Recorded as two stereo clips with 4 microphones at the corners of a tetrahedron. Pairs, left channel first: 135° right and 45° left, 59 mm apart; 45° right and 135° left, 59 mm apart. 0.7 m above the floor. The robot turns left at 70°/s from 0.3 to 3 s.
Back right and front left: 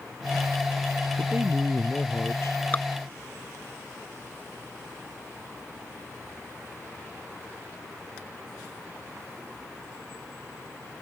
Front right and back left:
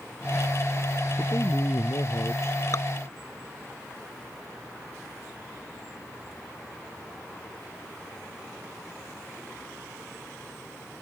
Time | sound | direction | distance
1.2 | a man speaking | straight ahead | ?
2.7 | dripping | 75° right | ?